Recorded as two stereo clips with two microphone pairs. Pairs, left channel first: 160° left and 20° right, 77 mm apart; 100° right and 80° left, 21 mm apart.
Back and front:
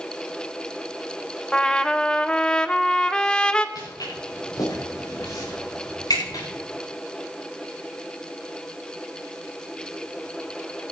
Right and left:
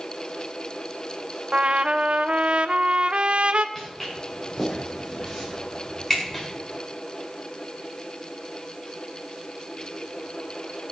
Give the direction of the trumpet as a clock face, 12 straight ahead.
9 o'clock.